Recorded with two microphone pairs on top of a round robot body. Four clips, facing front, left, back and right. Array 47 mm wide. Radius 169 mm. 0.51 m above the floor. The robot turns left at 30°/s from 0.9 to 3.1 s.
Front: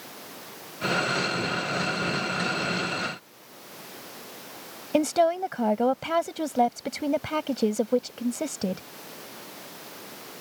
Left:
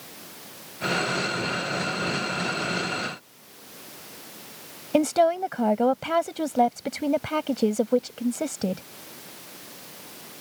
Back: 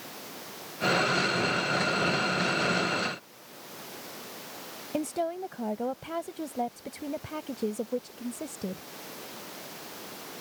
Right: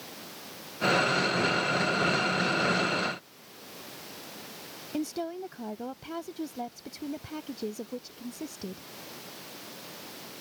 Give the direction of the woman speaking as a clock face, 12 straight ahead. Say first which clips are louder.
Left 13 dB, front 9 dB; 10 o'clock.